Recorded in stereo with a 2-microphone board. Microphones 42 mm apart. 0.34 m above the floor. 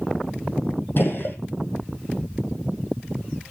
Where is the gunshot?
55° left (ahead or behind), 2.5 m.